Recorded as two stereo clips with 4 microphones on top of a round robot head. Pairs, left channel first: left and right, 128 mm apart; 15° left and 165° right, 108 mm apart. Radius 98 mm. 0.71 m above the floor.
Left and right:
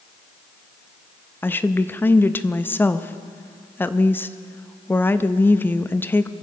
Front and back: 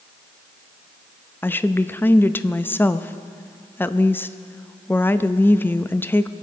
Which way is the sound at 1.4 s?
45° left.